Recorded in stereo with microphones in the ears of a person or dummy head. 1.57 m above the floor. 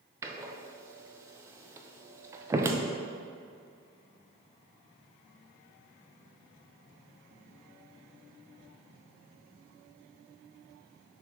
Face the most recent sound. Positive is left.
turn(degrees=-15)  # may be behind; listen again after turning